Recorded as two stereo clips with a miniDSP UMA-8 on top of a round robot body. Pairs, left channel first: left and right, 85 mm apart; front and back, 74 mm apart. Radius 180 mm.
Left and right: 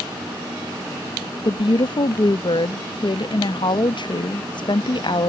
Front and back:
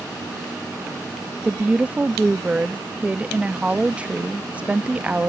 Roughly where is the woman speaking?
Left.